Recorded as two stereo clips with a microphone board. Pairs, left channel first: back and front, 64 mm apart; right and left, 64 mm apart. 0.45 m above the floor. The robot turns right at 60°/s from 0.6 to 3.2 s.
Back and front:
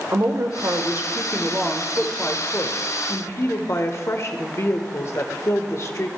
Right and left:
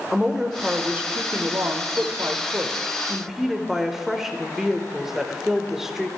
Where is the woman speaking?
15° left, 1.1 m; by 6.1 s 170° left, 1.1 m.